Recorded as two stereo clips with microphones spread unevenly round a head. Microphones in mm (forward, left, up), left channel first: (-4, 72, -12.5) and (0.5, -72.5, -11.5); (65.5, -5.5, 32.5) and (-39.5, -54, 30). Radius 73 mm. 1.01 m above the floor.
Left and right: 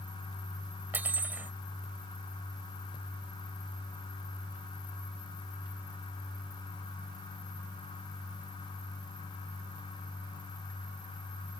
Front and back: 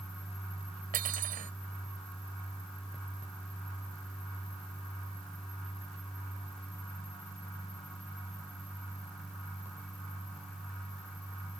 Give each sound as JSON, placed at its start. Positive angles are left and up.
{"t": 0.9, "sound": "cutlery clinking", "azimuth_deg": -165}